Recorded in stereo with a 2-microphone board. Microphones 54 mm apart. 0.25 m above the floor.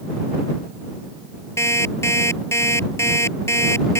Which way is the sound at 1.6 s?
55° left (ahead or behind).